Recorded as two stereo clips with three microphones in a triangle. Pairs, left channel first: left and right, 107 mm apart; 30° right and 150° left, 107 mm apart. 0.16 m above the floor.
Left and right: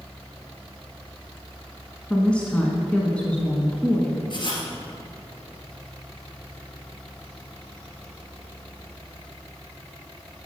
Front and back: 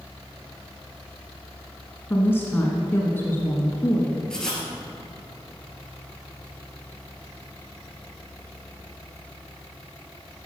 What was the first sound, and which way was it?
A woman speaking, 20° left.